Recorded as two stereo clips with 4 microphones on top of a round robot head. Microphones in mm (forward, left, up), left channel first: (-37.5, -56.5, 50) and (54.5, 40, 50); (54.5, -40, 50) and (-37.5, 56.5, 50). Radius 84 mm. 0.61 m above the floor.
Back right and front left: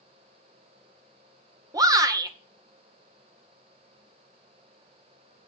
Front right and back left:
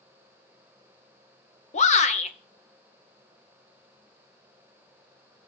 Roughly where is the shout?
Ahead.